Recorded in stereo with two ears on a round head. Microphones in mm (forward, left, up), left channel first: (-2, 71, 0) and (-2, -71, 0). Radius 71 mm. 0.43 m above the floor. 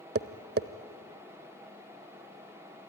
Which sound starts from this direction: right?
Tapping, at 0.1 s.